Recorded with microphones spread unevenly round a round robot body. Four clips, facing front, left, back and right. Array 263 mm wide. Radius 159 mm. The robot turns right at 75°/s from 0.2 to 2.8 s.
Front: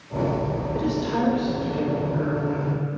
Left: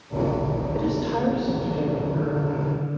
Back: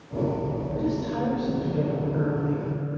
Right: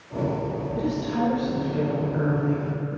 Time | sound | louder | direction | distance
0.7 | a woman speaking | left 1 dB, front 3 dB | 80° left | 1.9 m